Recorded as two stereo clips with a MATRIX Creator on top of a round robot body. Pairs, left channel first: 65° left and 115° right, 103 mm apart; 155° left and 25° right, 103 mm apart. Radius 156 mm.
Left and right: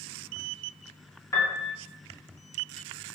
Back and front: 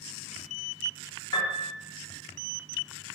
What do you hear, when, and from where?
1.3 s a piano: 120° left, 1.1 m